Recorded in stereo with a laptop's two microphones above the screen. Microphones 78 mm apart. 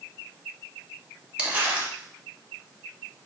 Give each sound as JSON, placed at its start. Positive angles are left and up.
{"t": 1.4, "sound": "crumpling", "side_deg": -25, "distance_m": 1.8}